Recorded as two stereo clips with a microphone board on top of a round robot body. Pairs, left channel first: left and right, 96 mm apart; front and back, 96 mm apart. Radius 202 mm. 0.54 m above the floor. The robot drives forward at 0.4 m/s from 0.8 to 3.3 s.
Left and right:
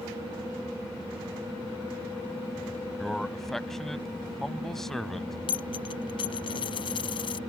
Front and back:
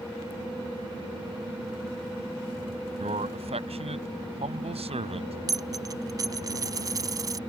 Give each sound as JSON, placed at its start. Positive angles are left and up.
{"t": 3.0, "sound": "a man speaking", "azimuth_deg": 175}
{"t": 5.5, "sound": "a dropped coin", "azimuth_deg": 125}